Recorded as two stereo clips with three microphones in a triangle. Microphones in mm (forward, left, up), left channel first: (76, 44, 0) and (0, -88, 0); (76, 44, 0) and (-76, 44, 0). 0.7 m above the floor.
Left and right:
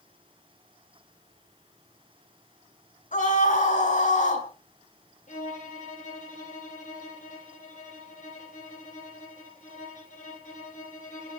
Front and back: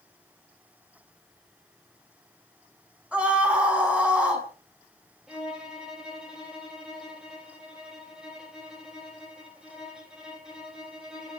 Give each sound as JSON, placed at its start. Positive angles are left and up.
{"t": 3.1, "sound": "a scream", "azimuth_deg": 95, "distance_m": 5.5}
{"t": 5.3, "sound": "a violin", "azimuth_deg": 95, "distance_m": 4.0}